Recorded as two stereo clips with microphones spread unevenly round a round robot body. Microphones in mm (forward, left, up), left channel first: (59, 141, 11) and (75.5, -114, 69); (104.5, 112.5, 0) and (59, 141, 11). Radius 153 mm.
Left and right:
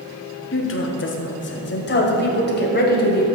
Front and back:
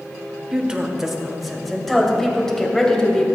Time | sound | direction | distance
0.5 | a woman speaking | 75° left | 1.4 m